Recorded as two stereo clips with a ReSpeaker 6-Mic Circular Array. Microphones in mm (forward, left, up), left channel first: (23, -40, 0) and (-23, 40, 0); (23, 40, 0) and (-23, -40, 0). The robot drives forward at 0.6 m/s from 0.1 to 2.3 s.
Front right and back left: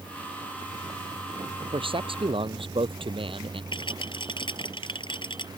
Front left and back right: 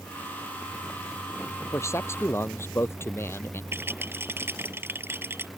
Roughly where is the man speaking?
Behind left.